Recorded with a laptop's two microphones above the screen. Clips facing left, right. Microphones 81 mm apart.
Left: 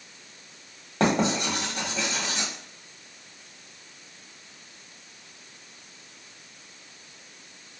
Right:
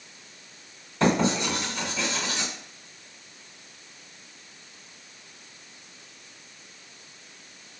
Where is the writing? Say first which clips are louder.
Right 1 dB; 65° left (ahead or behind), 1.2 m.